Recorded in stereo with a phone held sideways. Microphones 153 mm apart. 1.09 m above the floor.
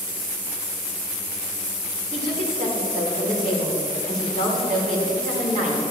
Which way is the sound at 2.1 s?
65° right (ahead or behind).